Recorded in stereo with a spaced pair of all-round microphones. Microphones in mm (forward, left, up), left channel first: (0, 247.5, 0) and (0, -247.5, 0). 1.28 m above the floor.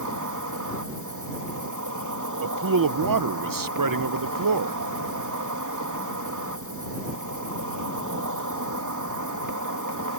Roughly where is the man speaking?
Right.